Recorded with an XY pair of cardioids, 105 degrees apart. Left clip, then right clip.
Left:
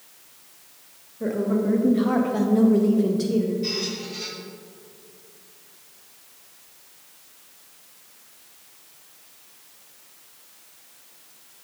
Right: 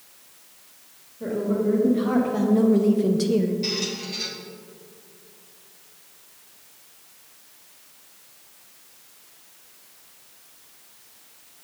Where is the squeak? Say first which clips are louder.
Right 1 dB; 55° right, 1.5 m.